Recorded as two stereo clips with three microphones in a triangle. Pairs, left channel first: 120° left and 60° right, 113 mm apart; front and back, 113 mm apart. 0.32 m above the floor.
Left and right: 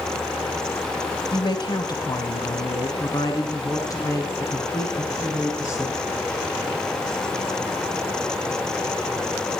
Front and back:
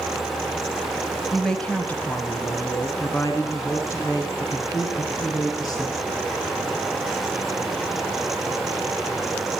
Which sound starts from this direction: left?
A woman speaking, at 1.3 s.